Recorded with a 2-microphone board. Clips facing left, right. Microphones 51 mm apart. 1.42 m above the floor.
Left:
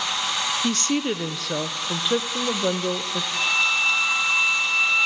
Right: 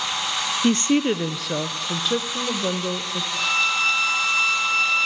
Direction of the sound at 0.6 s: 30° right (ahead or behind).